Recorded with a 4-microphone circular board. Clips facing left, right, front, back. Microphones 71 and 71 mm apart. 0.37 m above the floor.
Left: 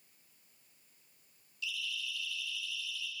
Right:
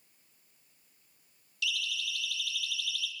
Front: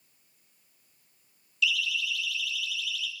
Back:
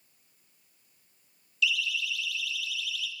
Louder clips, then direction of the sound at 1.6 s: Right 5 dB, even; 90° right.